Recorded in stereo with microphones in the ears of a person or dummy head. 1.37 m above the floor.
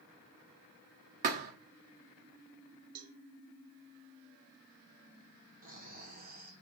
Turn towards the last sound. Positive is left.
turn(degrees=-50)  # may be behind; listen again after turning